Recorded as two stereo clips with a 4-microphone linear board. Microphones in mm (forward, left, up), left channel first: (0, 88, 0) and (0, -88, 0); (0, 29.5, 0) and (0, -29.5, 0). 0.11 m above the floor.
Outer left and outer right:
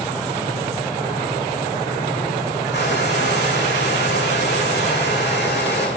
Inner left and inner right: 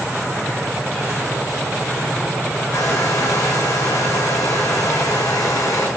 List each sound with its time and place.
2.7 s a hair dryer: 75° left (ahead or behind), 6 m